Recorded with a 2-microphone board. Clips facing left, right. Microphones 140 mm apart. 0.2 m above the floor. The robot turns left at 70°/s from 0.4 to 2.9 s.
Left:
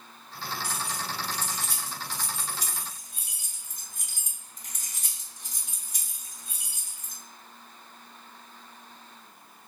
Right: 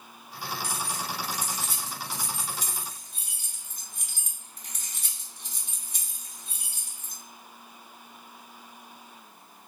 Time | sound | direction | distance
0.6 | keys jangling | 45° right (ahead or behind) | 1.3 m